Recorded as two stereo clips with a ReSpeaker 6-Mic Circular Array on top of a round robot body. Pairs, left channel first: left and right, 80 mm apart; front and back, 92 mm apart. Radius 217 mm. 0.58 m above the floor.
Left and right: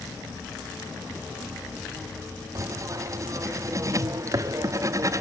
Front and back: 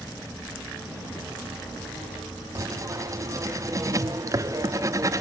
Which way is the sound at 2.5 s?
130° right.